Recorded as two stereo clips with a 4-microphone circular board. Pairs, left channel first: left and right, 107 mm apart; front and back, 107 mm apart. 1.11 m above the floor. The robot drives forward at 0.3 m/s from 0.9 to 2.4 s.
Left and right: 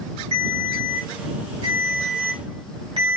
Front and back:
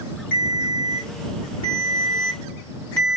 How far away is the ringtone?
About 1.9 m.